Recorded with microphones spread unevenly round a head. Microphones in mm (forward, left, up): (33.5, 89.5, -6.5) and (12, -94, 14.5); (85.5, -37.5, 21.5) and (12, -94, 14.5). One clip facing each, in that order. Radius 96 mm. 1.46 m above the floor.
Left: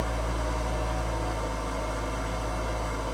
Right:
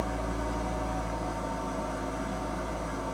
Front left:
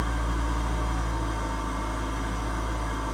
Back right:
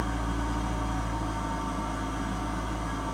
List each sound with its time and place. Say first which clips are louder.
0.0 s an engine running: even, even; 135° left, 8 m